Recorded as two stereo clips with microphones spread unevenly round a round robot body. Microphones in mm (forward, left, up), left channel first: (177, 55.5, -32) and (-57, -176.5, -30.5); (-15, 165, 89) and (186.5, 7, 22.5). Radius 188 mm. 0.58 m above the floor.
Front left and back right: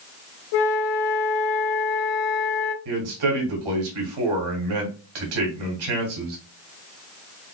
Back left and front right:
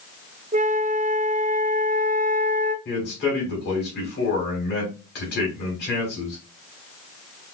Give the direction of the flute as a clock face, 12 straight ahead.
11 o'clock.